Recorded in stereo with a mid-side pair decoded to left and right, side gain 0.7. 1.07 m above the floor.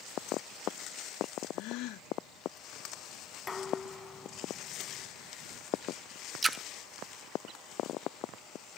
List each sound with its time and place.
1.5 s a gasp: 65° left
3.5 s dishes clattering: 20° left
6.4 s a splash: 15° right